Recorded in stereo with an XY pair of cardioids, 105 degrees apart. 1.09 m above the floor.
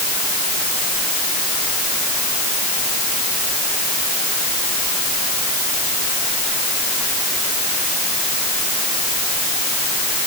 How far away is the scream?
No scream in this recording.